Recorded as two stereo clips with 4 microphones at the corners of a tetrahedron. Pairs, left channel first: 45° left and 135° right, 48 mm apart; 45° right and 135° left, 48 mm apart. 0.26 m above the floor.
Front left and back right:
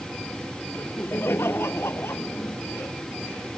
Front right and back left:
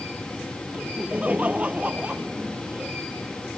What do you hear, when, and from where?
0.7 s laughter: 80° left; by 3.0 s 70° left